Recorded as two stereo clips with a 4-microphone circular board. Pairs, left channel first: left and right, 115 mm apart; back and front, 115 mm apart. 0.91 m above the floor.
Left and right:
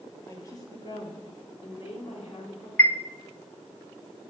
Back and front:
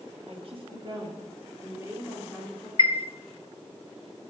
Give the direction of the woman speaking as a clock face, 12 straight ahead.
11 o'clock.